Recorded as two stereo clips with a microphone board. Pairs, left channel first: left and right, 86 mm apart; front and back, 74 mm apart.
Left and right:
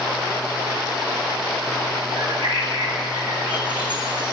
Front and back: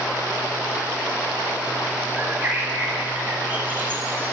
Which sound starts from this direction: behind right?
A bird, at 2.2 s.